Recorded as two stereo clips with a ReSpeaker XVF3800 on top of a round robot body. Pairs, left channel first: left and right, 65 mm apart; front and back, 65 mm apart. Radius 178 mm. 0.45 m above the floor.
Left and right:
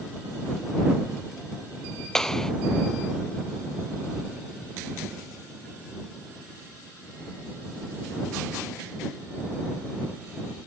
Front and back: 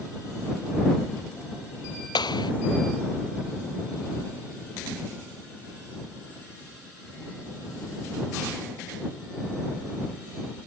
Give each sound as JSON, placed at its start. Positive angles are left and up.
{"t": 2.1, "sound": "a clap", "azimuth_deg": 10}